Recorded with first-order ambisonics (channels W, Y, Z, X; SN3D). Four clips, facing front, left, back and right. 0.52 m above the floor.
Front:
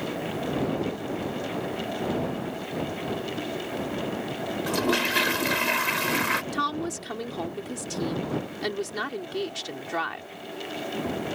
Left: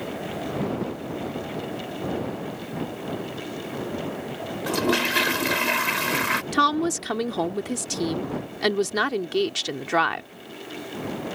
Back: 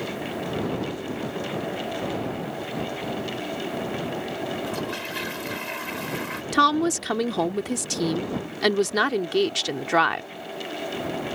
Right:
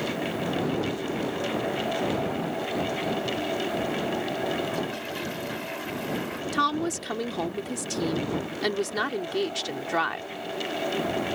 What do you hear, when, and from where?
4.7 s a toilet flushing: 60° left
6.5 s a woman speaking: 155° left